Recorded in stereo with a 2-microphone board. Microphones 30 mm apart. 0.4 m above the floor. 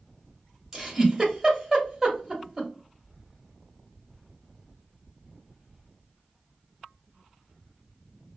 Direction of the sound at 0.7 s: 20° right (ahead or behind).